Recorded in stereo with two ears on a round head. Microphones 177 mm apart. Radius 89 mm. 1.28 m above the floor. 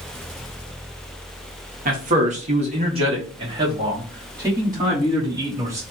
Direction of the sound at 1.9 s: 40° right (ahead or behind).